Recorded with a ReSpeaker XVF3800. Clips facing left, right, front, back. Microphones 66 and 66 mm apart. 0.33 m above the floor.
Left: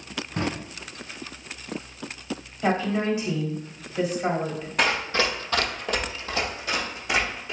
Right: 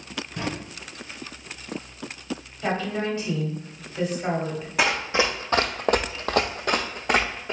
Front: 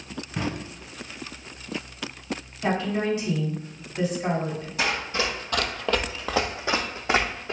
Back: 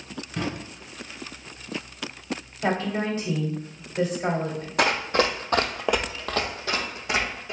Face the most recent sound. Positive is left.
turn(degrees=-50)